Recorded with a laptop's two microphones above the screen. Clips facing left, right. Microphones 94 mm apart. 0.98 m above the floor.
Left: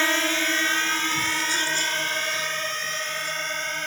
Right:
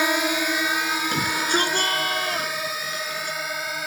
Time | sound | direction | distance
0.0 | a drone | 15° right (ahead or behind) | ?
1.1 | a shout | 60° right (ahead or behind) | ?